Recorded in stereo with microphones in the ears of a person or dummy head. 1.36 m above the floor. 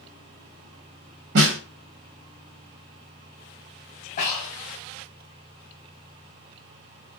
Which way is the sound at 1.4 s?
55° right (ahead or behind).